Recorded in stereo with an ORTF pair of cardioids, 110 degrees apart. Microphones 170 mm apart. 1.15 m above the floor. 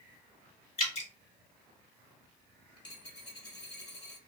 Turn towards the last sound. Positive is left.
turn(degrees=30)